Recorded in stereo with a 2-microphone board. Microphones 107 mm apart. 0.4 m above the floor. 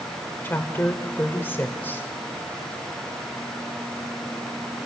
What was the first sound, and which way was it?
A woman speaking, 20° left (ahead or behind).